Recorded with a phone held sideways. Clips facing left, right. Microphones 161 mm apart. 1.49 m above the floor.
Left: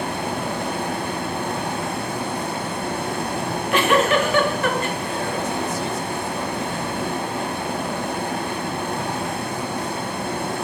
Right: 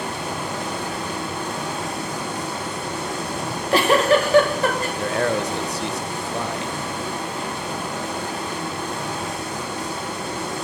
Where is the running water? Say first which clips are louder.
Left 3 dB; 55° left (ahead or behind), 1.8 m.